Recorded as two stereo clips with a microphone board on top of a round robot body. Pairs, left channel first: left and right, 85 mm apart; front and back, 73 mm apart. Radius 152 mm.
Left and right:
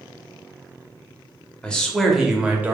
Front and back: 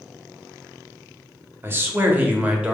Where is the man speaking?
160° left, 1.2 m; by 2.7 s 125° right, 1.1 m.